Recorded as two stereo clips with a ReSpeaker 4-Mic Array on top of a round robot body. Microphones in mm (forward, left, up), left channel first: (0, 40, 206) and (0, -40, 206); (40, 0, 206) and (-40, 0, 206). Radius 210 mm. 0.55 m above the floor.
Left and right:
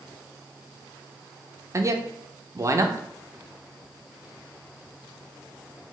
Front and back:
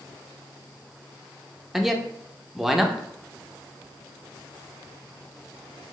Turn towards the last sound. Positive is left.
turn(degrees=-95)